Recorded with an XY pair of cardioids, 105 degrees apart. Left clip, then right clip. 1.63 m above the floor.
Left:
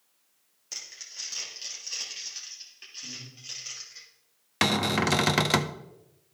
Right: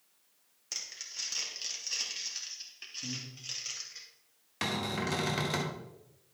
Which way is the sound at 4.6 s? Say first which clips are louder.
Left 9 dB; 70° left.